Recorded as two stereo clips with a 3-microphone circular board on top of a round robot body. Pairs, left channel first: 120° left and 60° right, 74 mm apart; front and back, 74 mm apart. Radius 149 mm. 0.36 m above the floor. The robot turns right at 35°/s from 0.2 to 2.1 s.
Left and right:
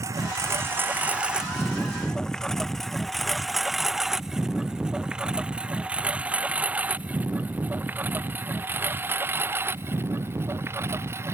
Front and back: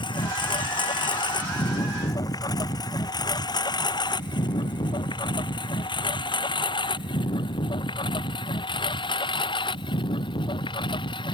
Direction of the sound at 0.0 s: 10° right.